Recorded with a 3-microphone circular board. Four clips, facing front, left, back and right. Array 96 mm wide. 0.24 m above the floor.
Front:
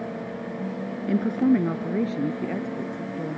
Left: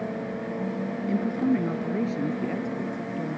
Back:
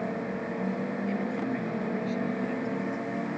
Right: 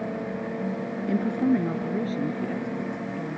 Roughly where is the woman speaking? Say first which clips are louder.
Right 2 dB, front 14 dB; ahead.